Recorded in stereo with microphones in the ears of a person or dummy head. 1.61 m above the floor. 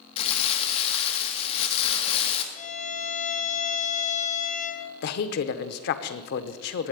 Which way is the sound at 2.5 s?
35° left (ahead or behind).